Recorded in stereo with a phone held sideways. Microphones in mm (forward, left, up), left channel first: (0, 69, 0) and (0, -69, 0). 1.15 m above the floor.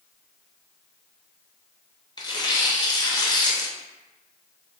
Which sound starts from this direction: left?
Tearing paper, at 2.2 s.